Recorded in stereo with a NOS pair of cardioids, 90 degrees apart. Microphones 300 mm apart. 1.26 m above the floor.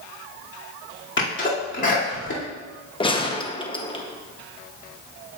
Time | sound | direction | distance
1.2 | a sneeze | 40° left | 2.5 m
3.0 | a gunshot | 15° left | 0.9 m